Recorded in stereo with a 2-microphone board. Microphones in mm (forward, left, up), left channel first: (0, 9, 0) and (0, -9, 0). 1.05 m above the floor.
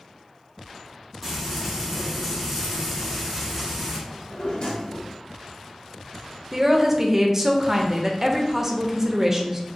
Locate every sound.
1.2 s frying: 5° left (ahead or behind), 1.2 m
4.1 s a drawer: 70° left (ahead or behind), 1.0 m
6.5 s a woman speaking: 20° right (ahead or behind), 0.5 m